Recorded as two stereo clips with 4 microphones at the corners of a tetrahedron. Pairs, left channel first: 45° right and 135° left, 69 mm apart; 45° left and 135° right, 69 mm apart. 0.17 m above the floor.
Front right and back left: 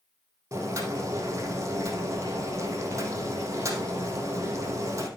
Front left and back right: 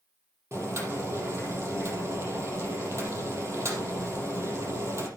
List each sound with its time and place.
0.5 s boiling: straight behind, 4.5 m